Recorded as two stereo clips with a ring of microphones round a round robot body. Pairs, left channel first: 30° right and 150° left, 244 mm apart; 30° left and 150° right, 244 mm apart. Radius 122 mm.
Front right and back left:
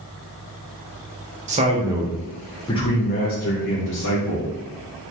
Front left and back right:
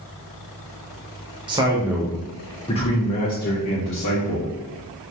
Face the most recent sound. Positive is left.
turn(degrees=-5)